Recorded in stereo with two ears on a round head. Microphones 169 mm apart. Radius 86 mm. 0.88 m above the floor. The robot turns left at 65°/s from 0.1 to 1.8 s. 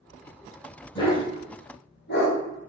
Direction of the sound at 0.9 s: 20° left (ahead or behind).